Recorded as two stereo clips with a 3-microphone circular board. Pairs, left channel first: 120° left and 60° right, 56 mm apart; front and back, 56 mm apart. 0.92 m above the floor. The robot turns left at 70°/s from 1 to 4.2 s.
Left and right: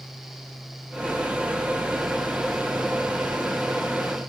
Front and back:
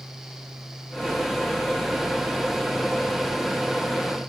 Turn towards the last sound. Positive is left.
No sound to turn to.